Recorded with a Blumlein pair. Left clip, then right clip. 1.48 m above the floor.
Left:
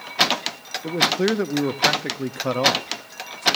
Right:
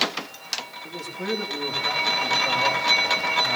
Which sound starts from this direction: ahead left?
A man speaking, at 0.8 s.